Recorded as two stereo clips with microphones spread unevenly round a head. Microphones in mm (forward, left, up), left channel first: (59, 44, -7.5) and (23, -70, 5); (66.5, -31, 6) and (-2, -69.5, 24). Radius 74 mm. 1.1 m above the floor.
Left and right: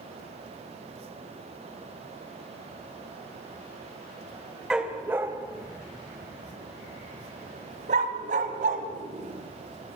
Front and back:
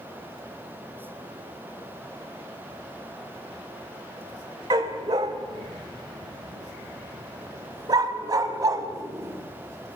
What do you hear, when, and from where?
4.7 s a dog barking: 170° left, 1.4 m; by 10.0 s 115° right, 3 m